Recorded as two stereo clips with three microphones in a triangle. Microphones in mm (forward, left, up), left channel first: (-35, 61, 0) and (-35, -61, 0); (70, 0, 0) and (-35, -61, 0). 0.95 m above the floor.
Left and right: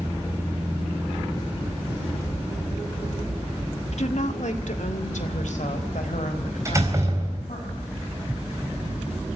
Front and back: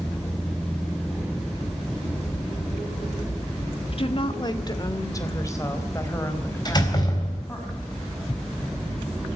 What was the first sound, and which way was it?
A woman speaking, 65° left.